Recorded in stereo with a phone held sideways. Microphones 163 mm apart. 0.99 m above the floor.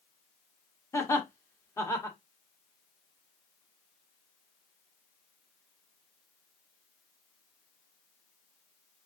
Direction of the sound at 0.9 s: 20° left (ahead or behind).